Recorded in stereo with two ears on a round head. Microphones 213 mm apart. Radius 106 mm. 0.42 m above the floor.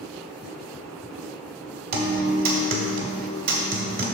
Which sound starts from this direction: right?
A guitar, at 1.9 s.